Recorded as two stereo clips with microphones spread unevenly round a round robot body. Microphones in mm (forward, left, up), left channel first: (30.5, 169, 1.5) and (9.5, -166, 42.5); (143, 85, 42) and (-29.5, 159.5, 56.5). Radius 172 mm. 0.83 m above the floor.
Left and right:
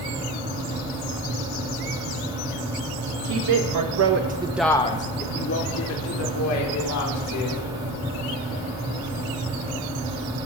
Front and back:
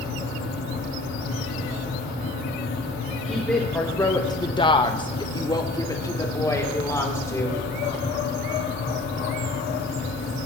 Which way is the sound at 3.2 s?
110° right.